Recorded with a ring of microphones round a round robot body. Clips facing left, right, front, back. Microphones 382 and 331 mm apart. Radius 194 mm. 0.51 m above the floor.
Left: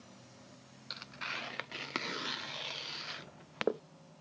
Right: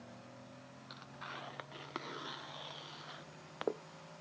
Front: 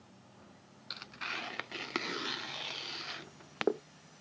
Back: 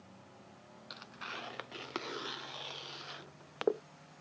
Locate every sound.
0.9 s tearing paper: 50° left